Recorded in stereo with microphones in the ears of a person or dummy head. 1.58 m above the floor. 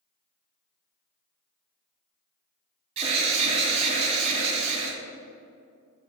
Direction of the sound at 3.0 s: 35° right (ahead or behind).